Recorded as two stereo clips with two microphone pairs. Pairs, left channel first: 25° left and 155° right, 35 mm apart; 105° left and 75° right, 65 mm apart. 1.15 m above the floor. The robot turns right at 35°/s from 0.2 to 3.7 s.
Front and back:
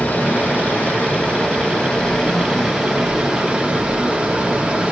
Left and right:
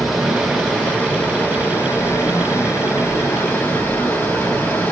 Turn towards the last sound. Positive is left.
turn(degrees=140)